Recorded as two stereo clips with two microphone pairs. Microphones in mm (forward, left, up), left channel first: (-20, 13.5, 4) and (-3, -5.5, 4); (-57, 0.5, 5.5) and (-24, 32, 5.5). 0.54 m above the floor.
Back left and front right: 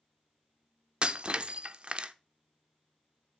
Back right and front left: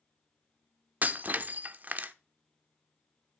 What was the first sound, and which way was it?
Breaking glass, 5° right.